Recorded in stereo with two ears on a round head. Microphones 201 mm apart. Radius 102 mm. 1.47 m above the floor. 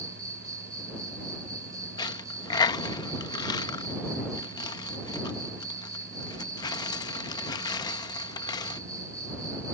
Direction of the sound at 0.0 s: 15° right (ahead or behind).